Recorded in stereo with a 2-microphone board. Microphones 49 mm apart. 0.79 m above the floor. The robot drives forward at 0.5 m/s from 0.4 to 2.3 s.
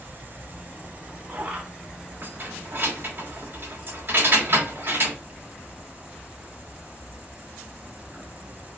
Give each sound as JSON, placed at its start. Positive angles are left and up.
{"t": 0.0, "sound": "an insect", "side_deg": -35, "distance_m": 0.7}
{"t": 2.2, "sound": "keys jangling", "side_deg": -45, "distance_m": 1.1}